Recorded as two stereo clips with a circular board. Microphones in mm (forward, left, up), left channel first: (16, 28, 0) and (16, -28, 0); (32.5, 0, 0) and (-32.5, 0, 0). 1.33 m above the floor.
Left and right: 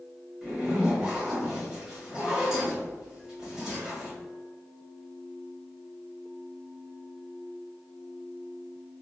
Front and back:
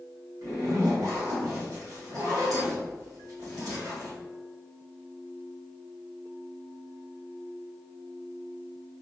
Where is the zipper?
175° right, 1.7 m.